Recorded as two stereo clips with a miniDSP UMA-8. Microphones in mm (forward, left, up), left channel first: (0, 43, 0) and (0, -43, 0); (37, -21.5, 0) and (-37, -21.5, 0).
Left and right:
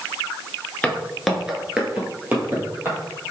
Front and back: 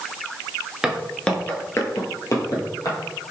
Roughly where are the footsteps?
Behind left.